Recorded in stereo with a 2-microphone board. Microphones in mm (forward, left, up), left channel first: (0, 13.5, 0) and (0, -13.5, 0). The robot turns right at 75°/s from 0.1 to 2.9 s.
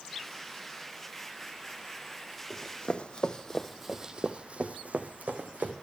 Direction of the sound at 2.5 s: 25° left (ahead or behind).